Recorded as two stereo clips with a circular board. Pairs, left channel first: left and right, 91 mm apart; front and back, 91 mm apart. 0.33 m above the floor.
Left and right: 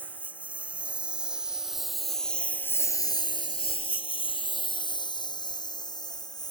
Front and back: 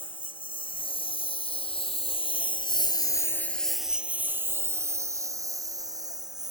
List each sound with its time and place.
0.0 s a lawn mower: 20° right; by 6.5 s 135° left